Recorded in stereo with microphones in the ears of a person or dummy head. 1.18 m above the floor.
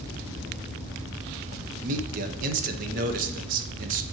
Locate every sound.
1.8 s a man speaking: 45° right (ahead or behind), 0.6 m